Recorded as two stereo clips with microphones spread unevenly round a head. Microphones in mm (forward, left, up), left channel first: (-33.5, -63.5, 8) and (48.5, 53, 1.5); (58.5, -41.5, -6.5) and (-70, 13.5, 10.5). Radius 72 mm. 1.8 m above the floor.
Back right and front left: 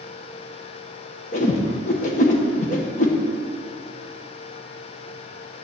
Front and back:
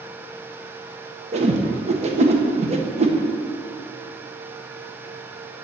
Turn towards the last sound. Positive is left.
turn(degrees=-165)